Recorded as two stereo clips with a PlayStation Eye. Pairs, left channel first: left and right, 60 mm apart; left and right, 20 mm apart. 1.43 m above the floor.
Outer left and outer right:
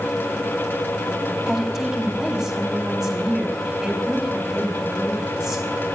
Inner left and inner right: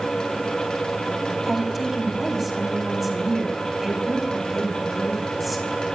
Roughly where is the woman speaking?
Centre.